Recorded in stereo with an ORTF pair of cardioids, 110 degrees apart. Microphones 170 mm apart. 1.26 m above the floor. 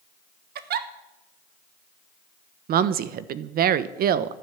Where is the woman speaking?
60° right, 1.1 m.